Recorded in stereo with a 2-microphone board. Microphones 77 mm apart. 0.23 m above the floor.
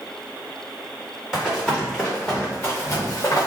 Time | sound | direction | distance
1.3 | running footsteps | centre (ahead or behind) | 1.8 m